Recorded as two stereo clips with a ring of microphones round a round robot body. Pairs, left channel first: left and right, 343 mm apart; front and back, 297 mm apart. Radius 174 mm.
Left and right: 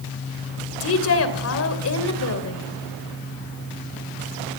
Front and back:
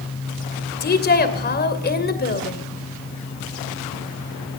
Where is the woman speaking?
50° left, 2.5 m.